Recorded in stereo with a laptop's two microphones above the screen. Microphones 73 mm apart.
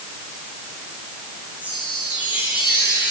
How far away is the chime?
About 8.5 m.